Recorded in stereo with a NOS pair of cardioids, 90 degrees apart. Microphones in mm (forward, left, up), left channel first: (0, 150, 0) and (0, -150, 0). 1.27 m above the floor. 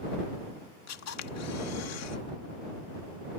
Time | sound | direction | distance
0.9 | a camera shutter | 60° left | ?